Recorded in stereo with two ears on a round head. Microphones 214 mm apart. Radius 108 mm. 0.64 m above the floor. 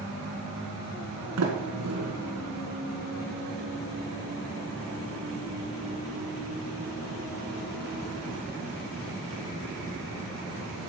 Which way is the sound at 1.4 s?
75° right (ahead or behind).